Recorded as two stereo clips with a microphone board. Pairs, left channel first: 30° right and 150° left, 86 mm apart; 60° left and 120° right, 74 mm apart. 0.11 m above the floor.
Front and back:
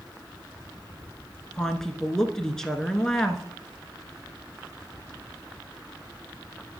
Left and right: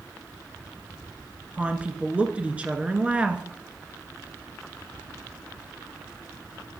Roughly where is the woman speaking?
Right.